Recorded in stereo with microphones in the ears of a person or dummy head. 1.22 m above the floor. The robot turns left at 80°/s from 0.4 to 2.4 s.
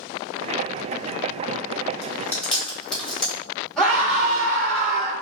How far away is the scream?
About 1.2 m.